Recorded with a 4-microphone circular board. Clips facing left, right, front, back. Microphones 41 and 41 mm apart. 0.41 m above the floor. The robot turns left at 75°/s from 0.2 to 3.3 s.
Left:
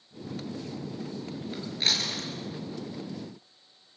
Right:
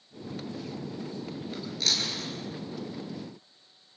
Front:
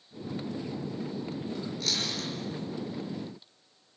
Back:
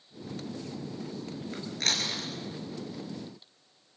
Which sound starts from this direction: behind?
Chewing, at 1.5 s.